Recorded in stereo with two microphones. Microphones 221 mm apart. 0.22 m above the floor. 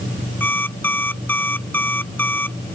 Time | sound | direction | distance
0.4 | an alarm clock | 10° left (ahead or behind) | ?